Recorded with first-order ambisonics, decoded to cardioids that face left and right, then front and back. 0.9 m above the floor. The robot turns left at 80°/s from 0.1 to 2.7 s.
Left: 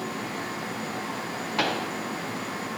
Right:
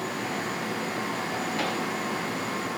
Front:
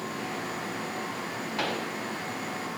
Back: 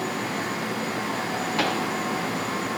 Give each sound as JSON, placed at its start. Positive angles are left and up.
{"t": 1.6, "sound": "a pop", "azimuth_deg": 125, "distance_m": 0.8}